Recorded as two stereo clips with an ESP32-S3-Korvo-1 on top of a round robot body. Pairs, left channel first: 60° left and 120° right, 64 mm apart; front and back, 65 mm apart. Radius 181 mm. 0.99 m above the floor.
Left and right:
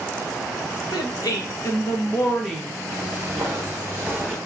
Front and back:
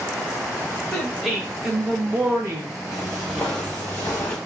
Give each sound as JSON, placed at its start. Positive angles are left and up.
{"t": 0.9, "sound": "a woman speaking", "azimuth_deg": 85, "distance_m": 1.5}
{"t": 2.9, "sound": "footsteps", "azimuth_deg": -175, "distance_m": 1.0}